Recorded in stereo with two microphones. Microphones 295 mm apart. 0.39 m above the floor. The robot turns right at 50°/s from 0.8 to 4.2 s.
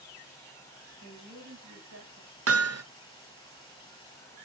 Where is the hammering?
50° right (ahead or behind), 0.6 m; by 2.8 s 55° right (ahead or behind), 0.6 m.